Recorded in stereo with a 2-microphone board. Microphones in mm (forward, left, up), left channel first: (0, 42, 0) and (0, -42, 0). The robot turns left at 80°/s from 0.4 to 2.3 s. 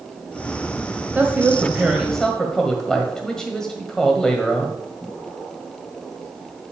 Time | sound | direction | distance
1.1 | a woman speaking | 25° right (ahead or behind) | 1.5 m